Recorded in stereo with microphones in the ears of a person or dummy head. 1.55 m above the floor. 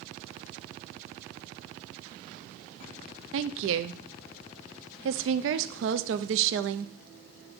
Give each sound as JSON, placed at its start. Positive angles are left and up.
{"t": 3.3, "sound": "a woman speaking", "side_deg": -70, "distance_m": 0.6}